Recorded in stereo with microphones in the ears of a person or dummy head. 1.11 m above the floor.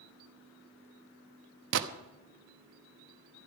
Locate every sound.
1.7 s a gunshot: 65° right (ahead or behind), 1.0 m